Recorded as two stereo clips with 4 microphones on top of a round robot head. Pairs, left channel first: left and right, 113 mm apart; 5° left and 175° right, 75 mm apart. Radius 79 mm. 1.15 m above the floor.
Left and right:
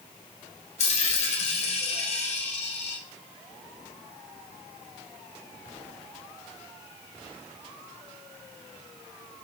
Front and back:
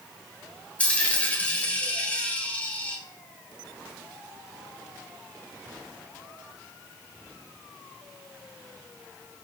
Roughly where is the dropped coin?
Left.